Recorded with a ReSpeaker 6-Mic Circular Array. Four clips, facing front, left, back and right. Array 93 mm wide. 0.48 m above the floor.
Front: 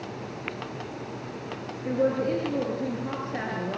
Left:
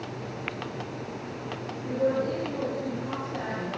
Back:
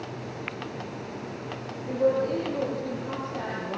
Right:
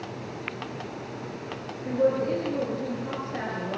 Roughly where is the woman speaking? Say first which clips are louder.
Right 2 dB, back 1 dB; ahead right.